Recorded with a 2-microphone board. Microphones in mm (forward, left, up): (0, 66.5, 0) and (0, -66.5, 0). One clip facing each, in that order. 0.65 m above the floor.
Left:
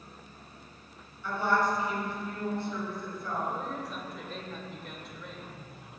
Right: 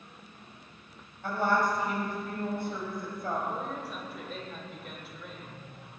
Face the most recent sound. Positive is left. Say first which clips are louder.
# even
turn(degrees=-5)  # may be behind; listen again after turning